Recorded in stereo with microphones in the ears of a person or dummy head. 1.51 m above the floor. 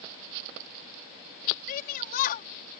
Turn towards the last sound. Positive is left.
turn(degrees=55)  # may be behind; listen again after turning